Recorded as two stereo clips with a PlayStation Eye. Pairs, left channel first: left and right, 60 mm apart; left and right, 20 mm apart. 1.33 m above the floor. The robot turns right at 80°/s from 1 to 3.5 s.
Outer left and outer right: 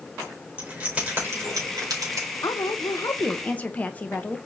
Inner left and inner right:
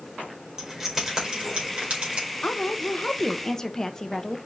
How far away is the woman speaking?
About 0.9 m.